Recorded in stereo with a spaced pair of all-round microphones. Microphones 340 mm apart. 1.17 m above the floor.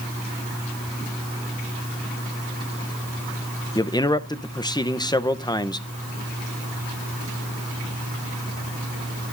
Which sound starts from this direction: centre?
A man speaking, at 3.8 s.